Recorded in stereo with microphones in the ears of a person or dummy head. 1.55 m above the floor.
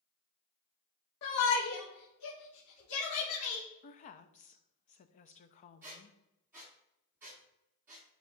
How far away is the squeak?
About 1.1 m.